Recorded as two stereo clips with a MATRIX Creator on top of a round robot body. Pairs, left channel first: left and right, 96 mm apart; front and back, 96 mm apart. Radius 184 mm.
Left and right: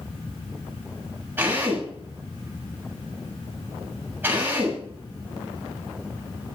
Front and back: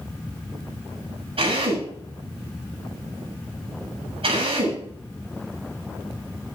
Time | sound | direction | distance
1.4 | a drill | 160° right | 8 m